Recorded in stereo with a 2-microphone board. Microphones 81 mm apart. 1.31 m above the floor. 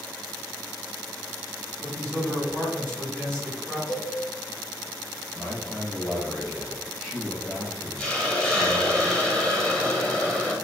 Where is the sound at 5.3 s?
5° right (ahead or behind), 1.1 m.